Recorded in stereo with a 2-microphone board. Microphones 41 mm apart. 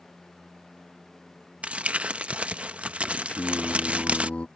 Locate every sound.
1.6 s crumpling: 35° right (ahead or behind)
3.3 s singing: 35° left (ahead or behind)